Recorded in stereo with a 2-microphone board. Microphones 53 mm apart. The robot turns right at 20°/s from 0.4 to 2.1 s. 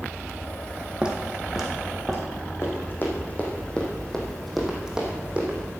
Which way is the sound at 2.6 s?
45° left (ahead or behind).